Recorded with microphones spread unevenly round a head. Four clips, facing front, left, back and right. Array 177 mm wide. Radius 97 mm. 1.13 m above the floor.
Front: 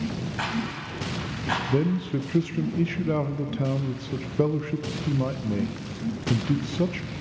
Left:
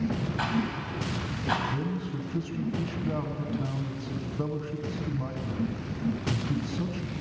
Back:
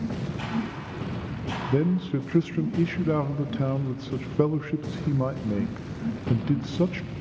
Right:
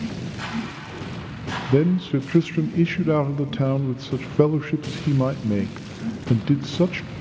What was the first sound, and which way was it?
A rattle, 35° left.